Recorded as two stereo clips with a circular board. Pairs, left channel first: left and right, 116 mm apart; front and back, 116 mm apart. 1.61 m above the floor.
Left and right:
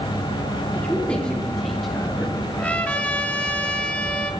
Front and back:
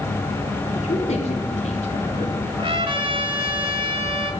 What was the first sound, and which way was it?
A man speaking, 15° left.